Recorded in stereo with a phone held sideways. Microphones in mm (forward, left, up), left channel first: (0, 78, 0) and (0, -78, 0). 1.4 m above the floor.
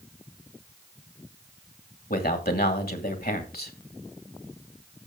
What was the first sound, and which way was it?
A man speaking, 85° left.